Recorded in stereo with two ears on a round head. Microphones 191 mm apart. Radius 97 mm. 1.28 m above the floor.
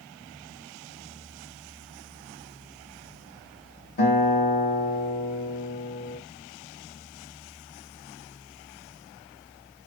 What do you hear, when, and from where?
4.0 s a guitar: 30° left (ahead or behind), 1.4 m